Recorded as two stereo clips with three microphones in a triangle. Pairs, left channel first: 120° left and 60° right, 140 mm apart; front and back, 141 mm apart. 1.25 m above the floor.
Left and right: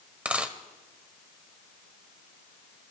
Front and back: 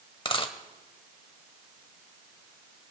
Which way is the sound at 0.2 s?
15° left.